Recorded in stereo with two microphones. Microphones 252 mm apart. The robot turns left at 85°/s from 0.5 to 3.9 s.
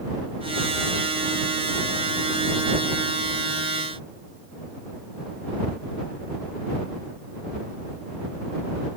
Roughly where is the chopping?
No chopping in this recording.